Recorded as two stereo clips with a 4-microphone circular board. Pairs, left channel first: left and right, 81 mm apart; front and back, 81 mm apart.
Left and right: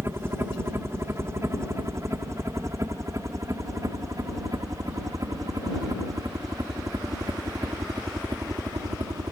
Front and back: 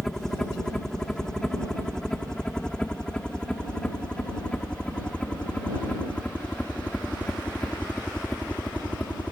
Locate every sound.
0.0 s a helicopter: 80° right; by 9.3 s 70° right